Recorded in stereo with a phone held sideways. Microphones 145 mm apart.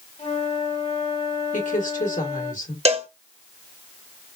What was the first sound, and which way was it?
A flute, 50° left (ahead or behind).